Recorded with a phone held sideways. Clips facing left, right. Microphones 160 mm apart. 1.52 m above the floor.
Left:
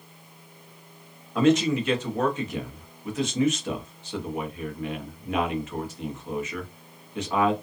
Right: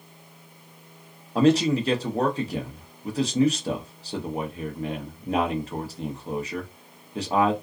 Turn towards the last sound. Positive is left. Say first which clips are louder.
# right 1 dB
turn(degrees=-35)  # may be behind; listen again after turning